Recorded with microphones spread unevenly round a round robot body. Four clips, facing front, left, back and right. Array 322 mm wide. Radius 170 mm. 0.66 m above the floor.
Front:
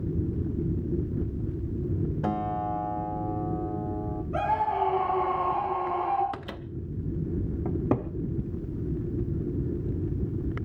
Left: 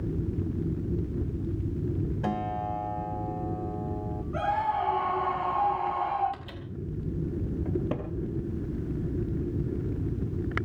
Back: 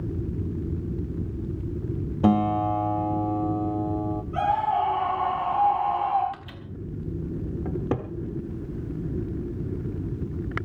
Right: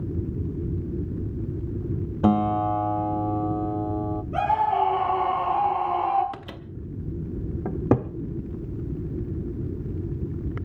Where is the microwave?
35° right, 1.3 m.